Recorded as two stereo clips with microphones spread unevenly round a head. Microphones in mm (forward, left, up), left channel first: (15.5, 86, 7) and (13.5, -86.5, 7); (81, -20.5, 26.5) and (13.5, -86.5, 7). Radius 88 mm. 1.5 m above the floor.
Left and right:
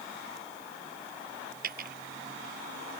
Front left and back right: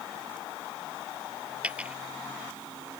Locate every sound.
1.6 s a dropped coin: 55° right